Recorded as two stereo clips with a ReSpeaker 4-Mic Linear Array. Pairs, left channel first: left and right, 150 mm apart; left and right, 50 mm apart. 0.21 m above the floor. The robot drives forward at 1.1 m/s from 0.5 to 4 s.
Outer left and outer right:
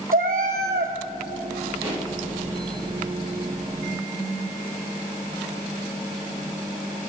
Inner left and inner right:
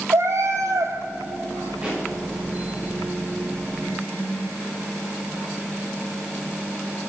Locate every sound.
0.1 s a cat meowing: 65° right (ahead or behind), 0.6 m; by 0.9 s 60° right (ahead or behind), 0.6 m
1.8 s a pop: 15° right (ahead or behind), 3.5 m; by 2.1 s 20° right (ahead or behind), 3 m